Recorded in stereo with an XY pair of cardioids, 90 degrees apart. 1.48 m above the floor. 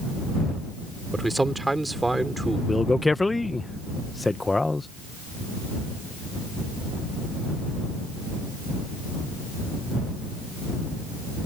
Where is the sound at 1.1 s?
15° right.